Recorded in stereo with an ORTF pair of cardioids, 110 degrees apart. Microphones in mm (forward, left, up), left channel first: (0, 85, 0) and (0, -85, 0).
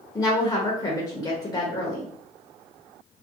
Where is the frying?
I don't hear frying.